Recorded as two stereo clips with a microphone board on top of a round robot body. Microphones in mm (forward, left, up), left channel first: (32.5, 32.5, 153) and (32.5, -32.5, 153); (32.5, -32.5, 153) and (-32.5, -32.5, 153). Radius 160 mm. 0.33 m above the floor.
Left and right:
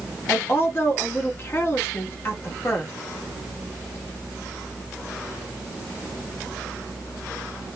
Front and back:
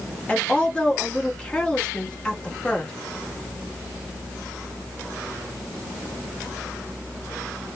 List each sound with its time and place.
0.3 s a woman speaking: 65° left, 1.0 m